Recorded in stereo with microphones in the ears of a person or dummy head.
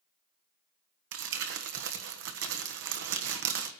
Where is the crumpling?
50° right (ahead or behind), 1.2 m.